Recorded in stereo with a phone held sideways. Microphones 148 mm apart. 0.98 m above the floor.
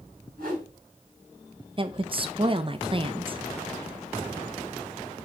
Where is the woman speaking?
35° right (ahead or behind), 0.6 m.